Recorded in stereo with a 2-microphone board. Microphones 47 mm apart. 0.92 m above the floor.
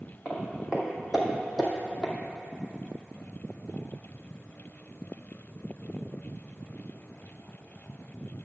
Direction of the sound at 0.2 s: 25° right (ahead or behind).